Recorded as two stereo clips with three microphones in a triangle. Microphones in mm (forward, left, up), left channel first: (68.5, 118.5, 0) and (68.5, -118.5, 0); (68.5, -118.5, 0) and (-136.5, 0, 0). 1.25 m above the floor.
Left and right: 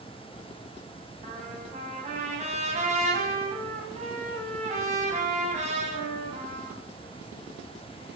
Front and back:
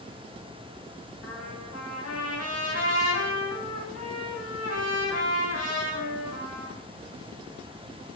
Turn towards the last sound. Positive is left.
turn(degrees=-30)